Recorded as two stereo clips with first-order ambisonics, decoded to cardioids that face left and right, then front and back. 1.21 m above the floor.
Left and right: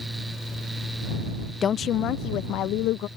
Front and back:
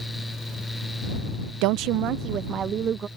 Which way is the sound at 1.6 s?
155° left.